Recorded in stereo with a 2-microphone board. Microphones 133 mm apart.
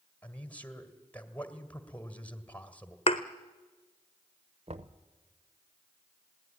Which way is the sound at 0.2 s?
10° left (ahead or behind).